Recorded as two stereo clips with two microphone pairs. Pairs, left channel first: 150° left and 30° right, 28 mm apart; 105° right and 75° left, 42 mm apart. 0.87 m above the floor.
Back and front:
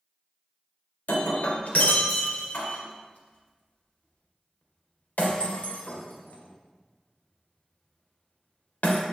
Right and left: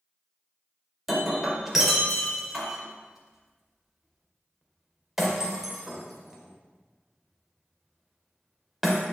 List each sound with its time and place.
1.1 s breaking glass: 155° left, 2 m